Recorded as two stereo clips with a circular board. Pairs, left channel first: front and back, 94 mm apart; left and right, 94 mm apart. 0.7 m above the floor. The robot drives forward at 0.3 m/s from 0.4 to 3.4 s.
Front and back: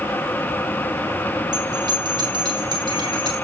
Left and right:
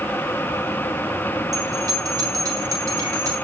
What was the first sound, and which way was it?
A bell, 140° right.